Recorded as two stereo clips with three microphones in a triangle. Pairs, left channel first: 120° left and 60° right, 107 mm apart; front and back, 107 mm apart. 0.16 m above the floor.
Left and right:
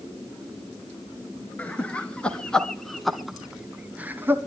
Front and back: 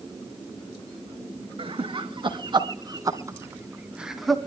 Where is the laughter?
165° right, 2.5 m; by 4.4 s 80° right, 1.2 m.